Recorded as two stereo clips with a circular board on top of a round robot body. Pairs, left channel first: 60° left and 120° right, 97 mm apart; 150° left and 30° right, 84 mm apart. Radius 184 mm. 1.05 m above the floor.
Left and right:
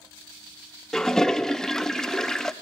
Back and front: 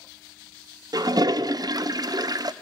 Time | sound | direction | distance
0.9 | a toilet flushing | 25° right | 0.7 m